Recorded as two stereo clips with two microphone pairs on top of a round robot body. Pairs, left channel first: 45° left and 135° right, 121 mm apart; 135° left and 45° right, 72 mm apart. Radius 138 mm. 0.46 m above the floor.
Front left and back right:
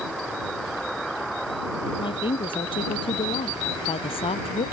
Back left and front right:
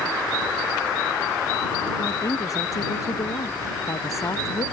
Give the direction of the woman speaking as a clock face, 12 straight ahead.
9 o'clock.